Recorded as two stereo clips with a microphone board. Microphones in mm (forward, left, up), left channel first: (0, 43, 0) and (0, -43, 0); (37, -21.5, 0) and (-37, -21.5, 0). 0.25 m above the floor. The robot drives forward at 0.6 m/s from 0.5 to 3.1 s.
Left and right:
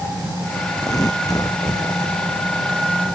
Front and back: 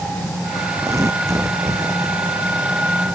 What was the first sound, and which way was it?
Tearing paper, 130° left.